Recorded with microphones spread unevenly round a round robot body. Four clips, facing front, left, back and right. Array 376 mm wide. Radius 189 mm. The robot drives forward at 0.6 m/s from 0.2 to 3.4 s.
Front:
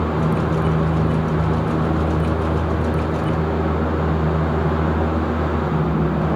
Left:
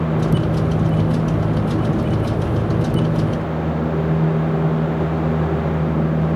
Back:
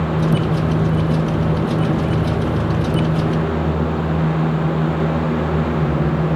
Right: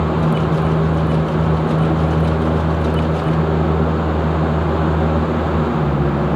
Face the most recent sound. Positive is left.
No sound to turn to.